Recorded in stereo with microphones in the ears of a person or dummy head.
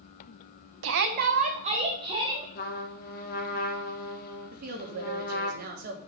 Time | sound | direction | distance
0.8 | a shout | 80° right | 0.8 m
2.5 | a trumpet | 65° left (ahead or behind) | 1.6 m
4.5 | a woman speaking | 60° right (ahead or behind) | 1.8 m